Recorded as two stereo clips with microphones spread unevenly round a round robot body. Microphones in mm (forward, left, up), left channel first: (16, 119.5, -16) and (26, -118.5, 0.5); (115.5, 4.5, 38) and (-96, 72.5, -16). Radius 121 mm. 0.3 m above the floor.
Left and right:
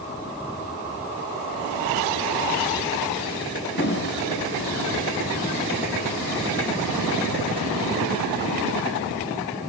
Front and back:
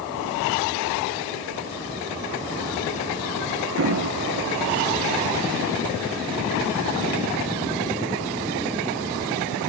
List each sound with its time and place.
3.8 s an explosion: 140° left, 3 m